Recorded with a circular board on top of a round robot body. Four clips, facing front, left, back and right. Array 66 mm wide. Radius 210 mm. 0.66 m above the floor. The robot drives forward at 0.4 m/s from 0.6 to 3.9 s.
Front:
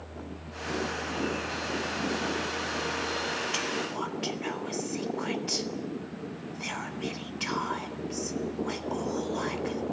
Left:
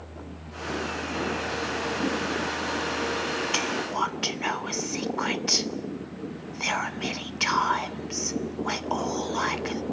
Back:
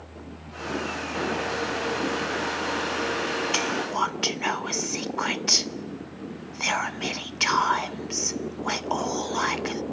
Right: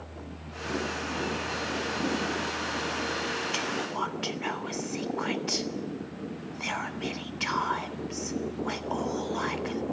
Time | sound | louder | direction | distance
3.5 | whispering | left 3 dB, back 6 dB | 145° left | 0.8 m